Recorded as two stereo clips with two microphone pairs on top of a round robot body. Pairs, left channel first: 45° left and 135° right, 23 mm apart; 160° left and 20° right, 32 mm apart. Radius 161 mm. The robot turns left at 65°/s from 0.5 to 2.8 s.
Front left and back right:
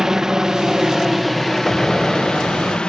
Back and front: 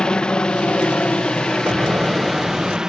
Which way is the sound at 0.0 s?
175° right.